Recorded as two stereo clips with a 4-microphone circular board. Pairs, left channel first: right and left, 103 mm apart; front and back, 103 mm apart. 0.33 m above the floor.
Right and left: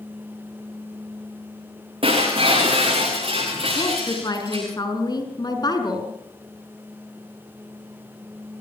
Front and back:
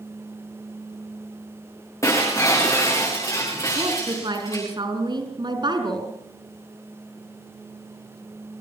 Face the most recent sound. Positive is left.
turn(degrees=-140)